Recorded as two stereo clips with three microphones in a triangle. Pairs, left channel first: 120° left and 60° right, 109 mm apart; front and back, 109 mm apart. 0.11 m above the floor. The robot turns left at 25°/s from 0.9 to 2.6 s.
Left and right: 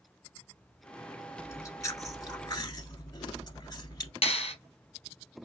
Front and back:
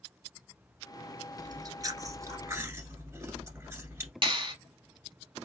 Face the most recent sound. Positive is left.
turn(degrees=145)